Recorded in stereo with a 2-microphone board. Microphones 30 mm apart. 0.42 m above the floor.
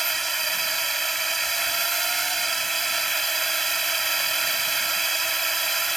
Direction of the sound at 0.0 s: 5° left (ahead or behind).